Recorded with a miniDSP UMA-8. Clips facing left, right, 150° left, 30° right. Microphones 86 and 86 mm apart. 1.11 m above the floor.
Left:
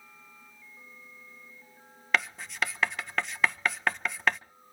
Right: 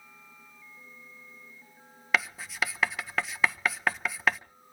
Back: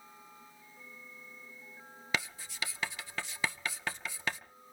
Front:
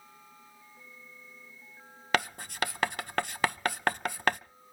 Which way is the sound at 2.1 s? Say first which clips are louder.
Even, front 8 dB; 5° right.